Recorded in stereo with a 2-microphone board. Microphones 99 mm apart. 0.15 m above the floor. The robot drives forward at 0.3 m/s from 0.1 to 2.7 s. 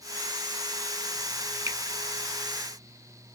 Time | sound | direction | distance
1.7 | a finger snap | 30° right (ahead or behind) | 1.0 m